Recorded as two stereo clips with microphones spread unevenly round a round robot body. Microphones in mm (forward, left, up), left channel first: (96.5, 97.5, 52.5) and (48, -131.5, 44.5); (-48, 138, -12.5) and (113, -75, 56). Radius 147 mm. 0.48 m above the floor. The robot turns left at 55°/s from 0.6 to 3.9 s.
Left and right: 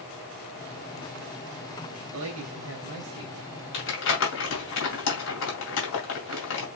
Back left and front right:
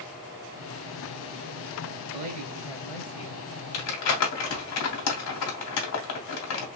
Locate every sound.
2.1 s a man speaking: 115° right, 2.0 m; by 3.4 s straight behind, 2.0 m
3.7 s crumpling: 125° left, 2.5 m; by 6.7 s 120° left, 2.5 m